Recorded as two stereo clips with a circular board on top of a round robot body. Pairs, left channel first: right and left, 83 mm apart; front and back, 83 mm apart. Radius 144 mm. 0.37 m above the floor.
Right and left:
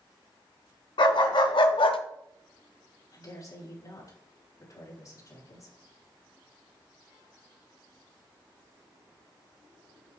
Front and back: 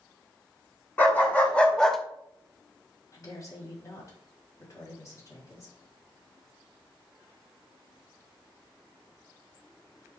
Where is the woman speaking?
45° right, 4 m.